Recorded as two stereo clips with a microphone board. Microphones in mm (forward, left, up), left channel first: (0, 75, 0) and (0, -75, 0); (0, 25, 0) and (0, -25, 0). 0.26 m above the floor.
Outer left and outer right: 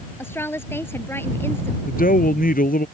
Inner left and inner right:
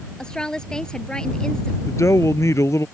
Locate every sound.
0.2 s a woman speaking: 15° left (ahead or behind)
1.9 s a man speaking: 70° left (ahead or behind)